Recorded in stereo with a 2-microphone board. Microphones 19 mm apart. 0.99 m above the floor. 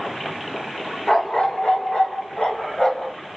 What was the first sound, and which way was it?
A dog barking, 40° left (ahead or behind).